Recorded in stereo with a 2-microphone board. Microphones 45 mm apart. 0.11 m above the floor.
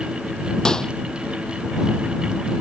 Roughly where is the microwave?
Centre.